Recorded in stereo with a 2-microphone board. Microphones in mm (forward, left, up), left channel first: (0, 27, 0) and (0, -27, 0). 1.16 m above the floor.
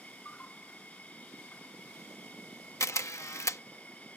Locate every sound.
0.0 s an insect: 30° left (ahead or behind)
2.8 s a camera shutter: 70° left (ahead or behind)